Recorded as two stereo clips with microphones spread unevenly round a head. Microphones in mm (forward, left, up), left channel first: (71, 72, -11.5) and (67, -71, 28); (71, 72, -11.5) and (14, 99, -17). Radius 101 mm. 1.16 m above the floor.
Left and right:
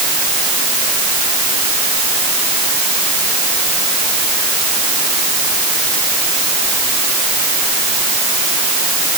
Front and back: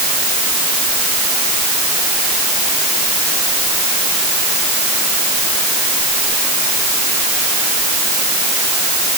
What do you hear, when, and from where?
Only background noise.